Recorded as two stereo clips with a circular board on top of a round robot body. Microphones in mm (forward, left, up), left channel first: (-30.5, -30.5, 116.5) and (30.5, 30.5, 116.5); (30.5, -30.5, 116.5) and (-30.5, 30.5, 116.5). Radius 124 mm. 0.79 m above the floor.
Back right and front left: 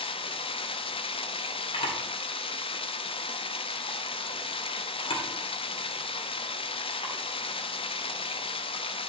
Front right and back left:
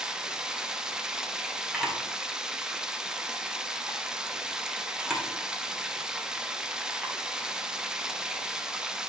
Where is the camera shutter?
140° right, 2 m.